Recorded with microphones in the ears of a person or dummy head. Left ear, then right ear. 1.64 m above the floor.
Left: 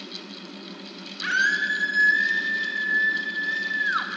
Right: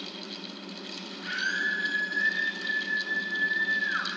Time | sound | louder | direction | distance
1.2 | a scream | left 7 dB | 60° left (ahead or behind) | 5.5 m